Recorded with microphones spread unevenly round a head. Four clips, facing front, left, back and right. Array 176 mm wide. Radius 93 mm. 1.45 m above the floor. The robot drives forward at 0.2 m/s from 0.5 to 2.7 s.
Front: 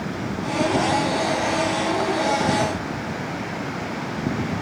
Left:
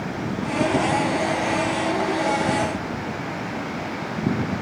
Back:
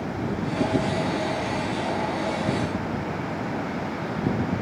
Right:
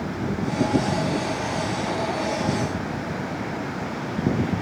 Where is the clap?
No clap in this recording.